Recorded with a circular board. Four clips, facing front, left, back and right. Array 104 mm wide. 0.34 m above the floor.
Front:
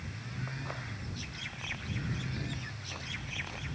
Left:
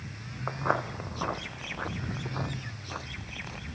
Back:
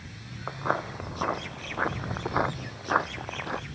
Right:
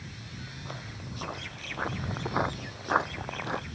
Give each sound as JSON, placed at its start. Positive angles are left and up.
{"t": 0.5, "sound": "footsteps", "azimuth_deg": 125}